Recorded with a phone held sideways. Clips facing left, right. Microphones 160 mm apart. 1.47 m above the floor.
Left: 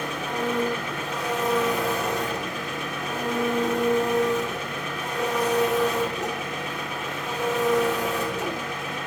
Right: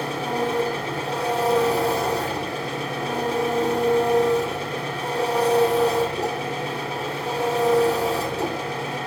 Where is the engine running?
35° right (ahead or behind), 3.5 m.